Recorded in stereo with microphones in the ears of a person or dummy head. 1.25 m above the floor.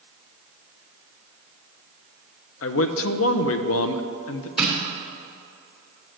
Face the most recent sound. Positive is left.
turn(degrees=0)  # may be behind; listen again after turning